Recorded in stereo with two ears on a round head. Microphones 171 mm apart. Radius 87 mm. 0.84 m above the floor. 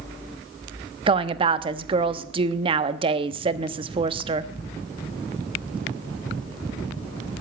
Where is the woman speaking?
30° right (ahead or behind), 1.0 m.